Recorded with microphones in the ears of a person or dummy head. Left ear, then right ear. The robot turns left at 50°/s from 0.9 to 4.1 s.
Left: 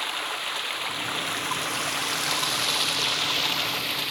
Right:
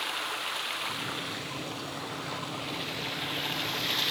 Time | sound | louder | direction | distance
0.0 | running water | left 3 dB | 165° left | 1.0 m